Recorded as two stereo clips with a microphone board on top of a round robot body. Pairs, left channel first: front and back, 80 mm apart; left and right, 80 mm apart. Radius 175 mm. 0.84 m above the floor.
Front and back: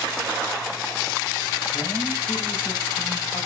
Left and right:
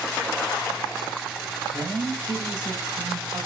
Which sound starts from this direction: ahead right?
A woman speaking, at 1.7 s.